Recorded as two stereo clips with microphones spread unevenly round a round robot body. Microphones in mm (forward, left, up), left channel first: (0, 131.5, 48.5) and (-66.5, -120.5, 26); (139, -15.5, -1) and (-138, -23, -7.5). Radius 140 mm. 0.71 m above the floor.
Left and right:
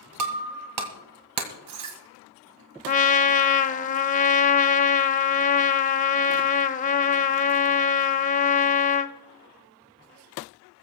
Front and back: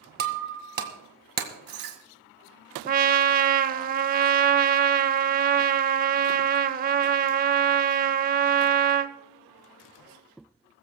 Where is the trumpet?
125° left, 0.6 m.